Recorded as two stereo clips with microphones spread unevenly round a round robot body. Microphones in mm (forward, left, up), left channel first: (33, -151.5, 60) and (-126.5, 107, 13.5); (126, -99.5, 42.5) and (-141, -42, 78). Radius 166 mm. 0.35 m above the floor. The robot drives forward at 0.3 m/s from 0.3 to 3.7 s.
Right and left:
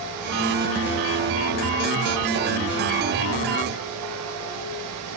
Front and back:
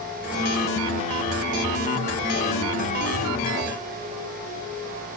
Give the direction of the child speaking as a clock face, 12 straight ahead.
No child speaking in this recording.